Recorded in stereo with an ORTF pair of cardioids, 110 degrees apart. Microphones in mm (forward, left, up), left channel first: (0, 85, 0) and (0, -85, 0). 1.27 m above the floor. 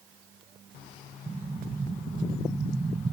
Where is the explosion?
25° right.